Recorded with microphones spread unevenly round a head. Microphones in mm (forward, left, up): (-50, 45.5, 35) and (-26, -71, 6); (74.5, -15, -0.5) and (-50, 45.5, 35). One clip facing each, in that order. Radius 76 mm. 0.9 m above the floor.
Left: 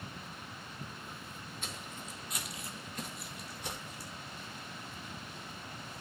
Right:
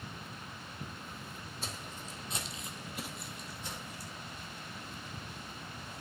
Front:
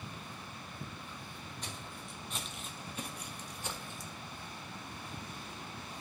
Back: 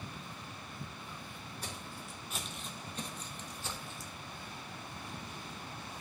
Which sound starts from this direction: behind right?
Footsteps, at 1.6 s.